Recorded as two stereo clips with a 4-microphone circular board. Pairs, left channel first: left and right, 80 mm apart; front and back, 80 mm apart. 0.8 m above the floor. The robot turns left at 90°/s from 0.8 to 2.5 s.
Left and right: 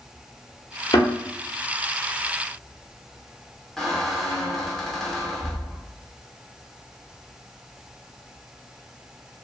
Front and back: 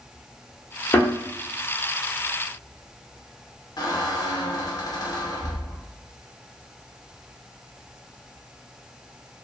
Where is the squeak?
5° left, 0.5 m.